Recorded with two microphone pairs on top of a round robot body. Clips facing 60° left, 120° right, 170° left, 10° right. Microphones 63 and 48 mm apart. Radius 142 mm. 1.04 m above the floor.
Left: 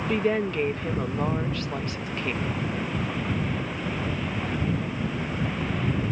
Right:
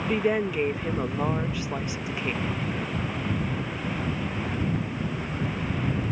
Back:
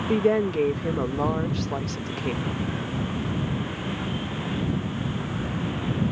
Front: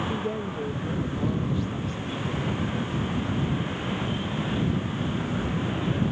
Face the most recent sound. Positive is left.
turn(degrees=160)